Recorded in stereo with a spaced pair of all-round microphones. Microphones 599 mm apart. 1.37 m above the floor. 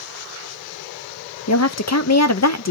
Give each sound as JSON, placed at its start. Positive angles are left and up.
{"t": 1.5, "sound": "a woman speaking", "side_deg": 30, "distance_m": 0.6}